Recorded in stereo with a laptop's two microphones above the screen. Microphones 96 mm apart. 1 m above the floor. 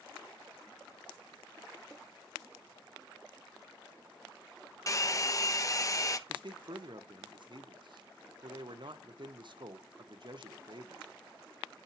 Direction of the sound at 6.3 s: 55° right (ahead or behind).